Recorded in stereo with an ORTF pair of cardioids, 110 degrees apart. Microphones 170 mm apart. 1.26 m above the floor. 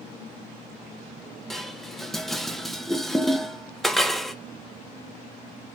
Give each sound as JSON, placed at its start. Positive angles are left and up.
{"t": 1.5, "sound": "dishes clattering", "azimuth_deg": 0, "distance_m": 0.7}